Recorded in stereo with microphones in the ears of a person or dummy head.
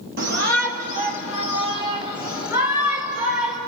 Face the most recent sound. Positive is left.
turn(degrees=-10)  # may be behind; listen again after turning